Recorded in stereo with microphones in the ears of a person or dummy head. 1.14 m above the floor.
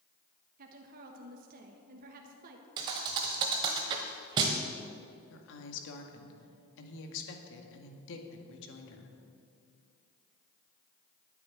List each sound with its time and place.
0.6 s a woman speaking: 50° right (ahead or behind), 1.2 m
2.8 s a thud: 25° right (ahead or behind), 1.0 m
5.3 s a woman speaking: 70° left (ahead or behind), 2 m